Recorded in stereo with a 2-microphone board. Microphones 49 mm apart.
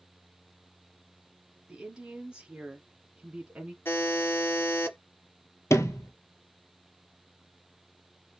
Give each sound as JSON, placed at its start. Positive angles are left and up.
{"t": 1.7, "sound": "a woman speaking", "side_deg": -15, "distance_m": 1.7}
{"t": 3.9, "sound": "a buzzer", "side_deg": 50, "distance_m": 1.9}
{"t": 5.7, "sound": "a sliding door", "side_deg": 75, "distance_m": 0.7}